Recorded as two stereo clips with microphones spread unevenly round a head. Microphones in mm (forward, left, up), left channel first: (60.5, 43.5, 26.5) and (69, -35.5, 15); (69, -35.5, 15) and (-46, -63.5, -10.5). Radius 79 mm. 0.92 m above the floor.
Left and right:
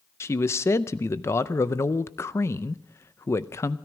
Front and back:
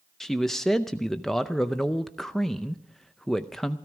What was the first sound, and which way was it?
A man speaking, 125° left.